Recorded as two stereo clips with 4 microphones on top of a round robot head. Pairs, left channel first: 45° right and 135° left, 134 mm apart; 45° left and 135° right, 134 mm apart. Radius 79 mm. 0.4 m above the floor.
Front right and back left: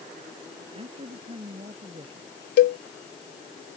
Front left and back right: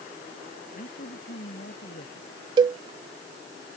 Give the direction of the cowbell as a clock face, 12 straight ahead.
2 o'clock.